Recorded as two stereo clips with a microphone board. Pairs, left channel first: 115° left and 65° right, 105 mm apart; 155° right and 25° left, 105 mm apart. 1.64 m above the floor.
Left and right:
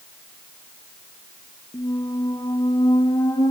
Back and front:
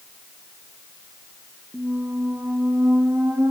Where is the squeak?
85° left, 0.7 m.